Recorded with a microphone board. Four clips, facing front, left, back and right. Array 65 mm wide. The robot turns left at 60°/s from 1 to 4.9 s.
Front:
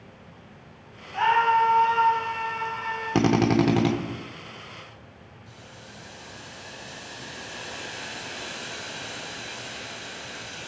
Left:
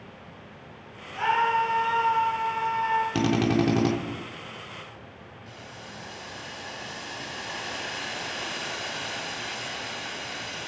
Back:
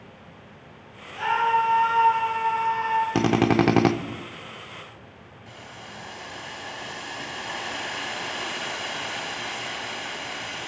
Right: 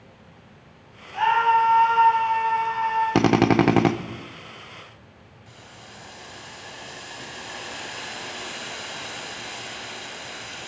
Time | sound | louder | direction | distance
1.1 | a scream | right 5 dB, front 2 dB | 45° right | 5.5 m
3.1 | a drill | right 5 dB, front 2 dB | 90° right | 0.6 m
5.5 | boiling | left 2 dB, back 6 dB | 170° left | 1.7 m